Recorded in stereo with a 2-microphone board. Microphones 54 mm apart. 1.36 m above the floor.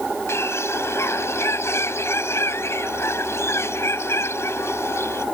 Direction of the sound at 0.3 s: 60° left (ahead or behind).